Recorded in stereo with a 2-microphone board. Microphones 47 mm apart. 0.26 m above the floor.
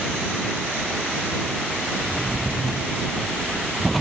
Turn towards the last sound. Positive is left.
turn(degrees=5)  # may be behind; listen again after turning